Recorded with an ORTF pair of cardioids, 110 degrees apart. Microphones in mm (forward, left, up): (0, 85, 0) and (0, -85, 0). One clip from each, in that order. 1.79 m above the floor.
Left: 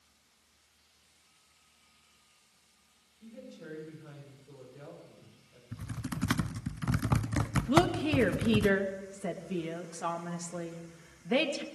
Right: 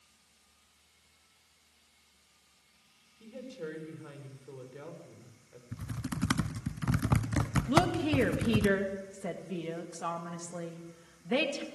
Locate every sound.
3.2 s a woman speaking: 55° right, 7.5 m
5.7 s typing on a keyboard: straight ahead, 0.7 m
7.7 s a woman speaking: 10° left, 2.5 m